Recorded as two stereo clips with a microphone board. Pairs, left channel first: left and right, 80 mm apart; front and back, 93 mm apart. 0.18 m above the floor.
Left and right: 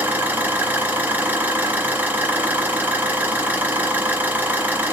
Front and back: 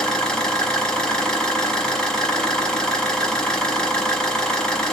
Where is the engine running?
70° right, 1.1 m.